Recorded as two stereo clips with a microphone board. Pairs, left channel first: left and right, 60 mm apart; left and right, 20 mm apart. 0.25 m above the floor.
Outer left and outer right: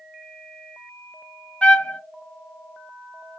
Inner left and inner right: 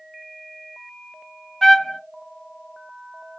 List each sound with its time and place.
1.6 s a trumpet: 20° left (ahead or behind), 0.8 m